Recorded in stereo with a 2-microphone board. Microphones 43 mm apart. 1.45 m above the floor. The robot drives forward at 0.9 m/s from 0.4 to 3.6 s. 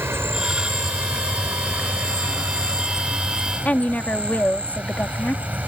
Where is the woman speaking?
40° left (ahead or behind).